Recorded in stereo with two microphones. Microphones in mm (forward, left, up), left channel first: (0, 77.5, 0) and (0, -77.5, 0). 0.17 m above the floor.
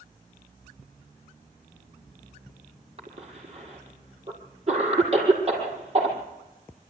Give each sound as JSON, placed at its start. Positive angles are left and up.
{"t": 3.0, "sound": "a cough", "side_deg": -40, "distance_m": 6.0}